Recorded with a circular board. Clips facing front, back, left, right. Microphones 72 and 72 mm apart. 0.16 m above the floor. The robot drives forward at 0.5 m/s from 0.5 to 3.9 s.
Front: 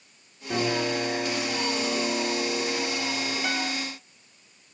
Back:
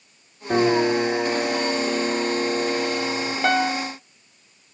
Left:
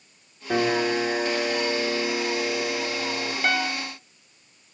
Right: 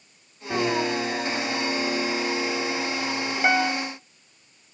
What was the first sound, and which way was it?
A piano, 150° left.